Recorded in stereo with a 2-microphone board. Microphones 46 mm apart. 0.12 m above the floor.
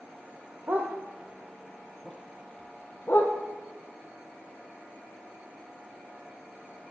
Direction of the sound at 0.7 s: 40° right (ahead or behind).